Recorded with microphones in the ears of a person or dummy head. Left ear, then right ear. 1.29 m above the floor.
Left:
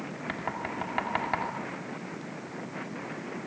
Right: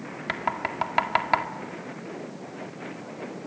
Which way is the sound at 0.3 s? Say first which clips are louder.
Right 7 dB; 30° right (ahead or behind).